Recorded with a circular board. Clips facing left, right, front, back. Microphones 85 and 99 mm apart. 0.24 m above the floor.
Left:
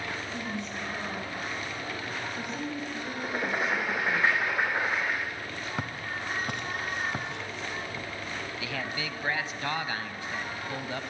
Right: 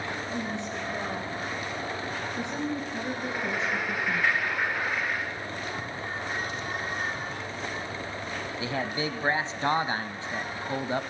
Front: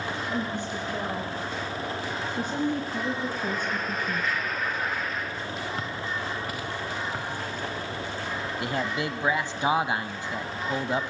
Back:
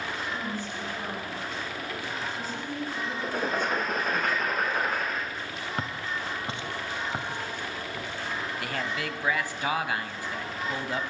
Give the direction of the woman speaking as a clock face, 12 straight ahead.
1 o'clock.